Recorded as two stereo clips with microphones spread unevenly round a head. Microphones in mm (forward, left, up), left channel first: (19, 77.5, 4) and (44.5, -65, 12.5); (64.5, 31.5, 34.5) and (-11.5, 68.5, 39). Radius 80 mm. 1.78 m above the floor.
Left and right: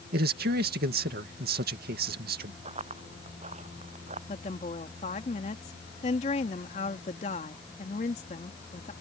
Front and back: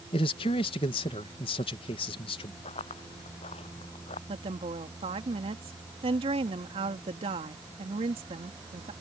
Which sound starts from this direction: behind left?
A woman speaking, at 4.3 s.